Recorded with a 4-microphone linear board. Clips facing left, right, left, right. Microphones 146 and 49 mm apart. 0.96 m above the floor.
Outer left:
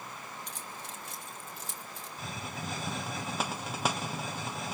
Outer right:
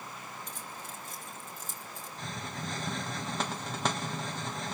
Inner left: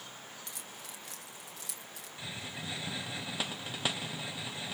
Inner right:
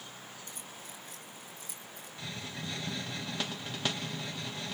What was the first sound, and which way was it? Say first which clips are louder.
Keys jangling: even, even; 70° left (ahead or behind).